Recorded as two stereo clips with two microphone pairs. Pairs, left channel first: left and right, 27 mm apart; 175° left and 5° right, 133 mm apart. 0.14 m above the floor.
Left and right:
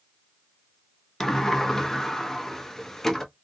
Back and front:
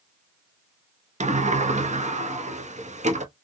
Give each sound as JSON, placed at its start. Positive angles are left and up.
{"t": 1.2, "sound": "a sliding door", "azimuth_deg": 15, "distance_m": 0.6}